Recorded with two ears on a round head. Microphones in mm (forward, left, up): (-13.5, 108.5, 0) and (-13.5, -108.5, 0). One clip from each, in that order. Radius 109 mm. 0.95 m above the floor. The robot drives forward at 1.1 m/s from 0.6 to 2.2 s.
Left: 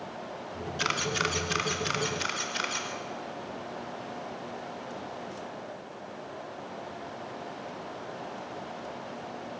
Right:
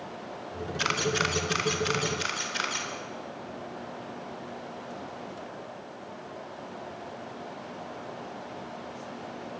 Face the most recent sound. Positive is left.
turn(degrees=0)  # may be behind; listen again after turning